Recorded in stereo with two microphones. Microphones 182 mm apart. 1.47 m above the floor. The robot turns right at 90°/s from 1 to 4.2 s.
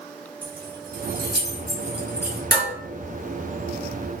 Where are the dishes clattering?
70° right (ahead or behind), 1.4 m.